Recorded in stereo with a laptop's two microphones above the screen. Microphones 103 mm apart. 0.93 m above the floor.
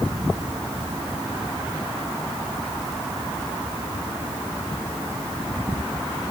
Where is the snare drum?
I don't hear a snare drum.